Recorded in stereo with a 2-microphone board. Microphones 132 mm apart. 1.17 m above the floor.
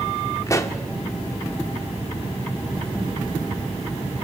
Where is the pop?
25° left (ahead or behind), 1.9 m.